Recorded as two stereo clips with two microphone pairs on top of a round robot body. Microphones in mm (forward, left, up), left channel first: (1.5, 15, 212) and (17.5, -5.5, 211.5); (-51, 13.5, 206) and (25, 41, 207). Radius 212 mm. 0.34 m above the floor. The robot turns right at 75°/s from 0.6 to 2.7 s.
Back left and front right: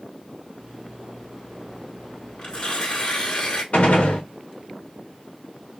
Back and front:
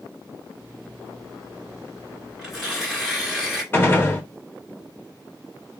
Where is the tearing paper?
95° left, 1.8 m; by 3.6 s 120° left, 1.8 m.